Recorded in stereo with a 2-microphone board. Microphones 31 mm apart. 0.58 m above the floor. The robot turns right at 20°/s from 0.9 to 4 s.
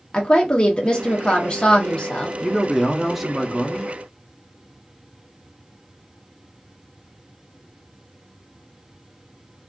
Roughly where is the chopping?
No chopping in this recording.